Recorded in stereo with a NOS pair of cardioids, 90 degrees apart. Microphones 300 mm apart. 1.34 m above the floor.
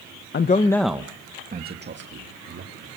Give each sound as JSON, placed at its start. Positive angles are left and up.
{"t": 0.3, "sound": "a man speaking", "azimuth_deg": 35, "distance_m": 1.1}